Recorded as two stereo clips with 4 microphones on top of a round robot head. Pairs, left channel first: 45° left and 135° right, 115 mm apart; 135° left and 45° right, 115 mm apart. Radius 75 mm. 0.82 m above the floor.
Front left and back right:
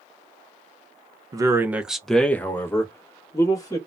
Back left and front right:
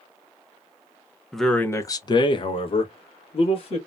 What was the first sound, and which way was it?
A man speaking, 130° right.